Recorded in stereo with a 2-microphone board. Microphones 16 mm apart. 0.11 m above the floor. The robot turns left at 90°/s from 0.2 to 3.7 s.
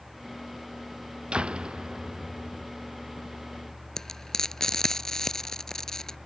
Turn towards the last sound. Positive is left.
turn(degrees=30)  # may be behind; listen again after turning